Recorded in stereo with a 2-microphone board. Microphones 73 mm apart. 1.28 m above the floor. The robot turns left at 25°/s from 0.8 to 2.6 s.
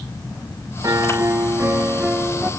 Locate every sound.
0.8 s a piano: 125° right, 1.5 m; by 2.5 s 165° right, 1.5 m